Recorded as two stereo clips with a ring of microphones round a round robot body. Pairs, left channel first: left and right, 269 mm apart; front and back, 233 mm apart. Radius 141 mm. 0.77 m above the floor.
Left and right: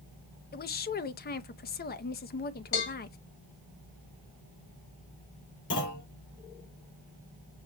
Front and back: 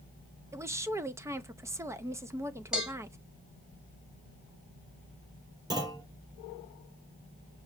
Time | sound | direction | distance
0.5 | a woman speaking | 110° left | 0.6 m
2.7 | a cowbell | 95° left | 2.5 m
5.7 | a clunk | 105° left | 3 m